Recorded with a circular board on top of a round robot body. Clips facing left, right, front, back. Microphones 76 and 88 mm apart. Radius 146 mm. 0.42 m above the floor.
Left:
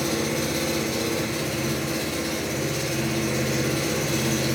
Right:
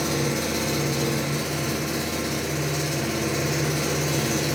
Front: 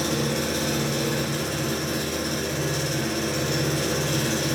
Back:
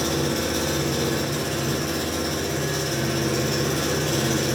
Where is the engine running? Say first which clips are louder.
Even, back 1 dB; 155° right, 0.8 m.